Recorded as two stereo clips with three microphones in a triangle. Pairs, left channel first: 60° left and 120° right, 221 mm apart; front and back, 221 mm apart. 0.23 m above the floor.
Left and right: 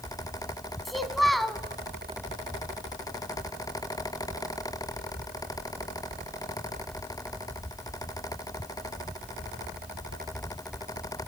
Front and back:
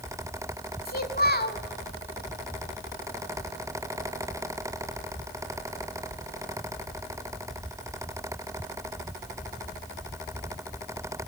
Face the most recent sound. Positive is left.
turn(degrees=-30)